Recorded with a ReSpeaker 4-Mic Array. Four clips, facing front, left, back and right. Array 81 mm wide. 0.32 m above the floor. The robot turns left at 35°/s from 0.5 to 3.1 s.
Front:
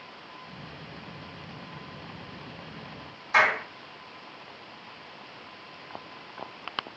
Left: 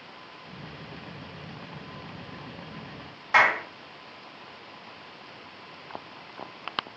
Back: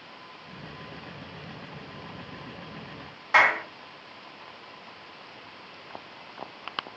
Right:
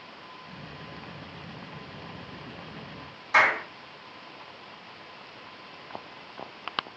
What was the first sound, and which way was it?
A clap, 135° left.